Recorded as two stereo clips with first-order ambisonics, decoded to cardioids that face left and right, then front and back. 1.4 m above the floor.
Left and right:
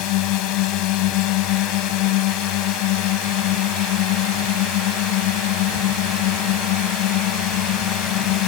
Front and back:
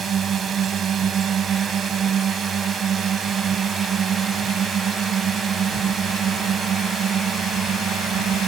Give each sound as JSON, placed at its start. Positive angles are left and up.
{"t": 0.0, "sound": "a drone", "azimuth_deg": 115}